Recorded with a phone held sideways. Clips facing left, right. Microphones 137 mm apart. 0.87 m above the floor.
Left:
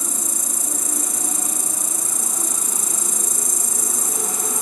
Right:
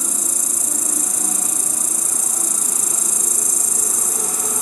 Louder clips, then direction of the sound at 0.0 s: Right 1 dB; 55° left (ahead or behind).